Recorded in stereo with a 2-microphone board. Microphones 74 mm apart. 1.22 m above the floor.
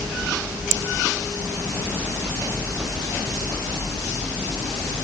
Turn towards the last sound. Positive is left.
No sound to turn to.